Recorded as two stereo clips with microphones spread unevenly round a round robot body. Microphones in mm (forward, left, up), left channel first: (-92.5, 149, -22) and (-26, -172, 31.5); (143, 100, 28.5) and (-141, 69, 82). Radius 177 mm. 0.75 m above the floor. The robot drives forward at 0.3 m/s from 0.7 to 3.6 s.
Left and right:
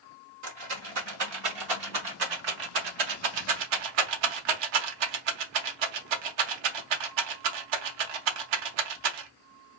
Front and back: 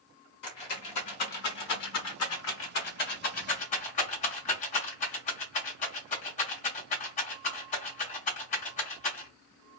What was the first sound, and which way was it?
A rattle, 30° right.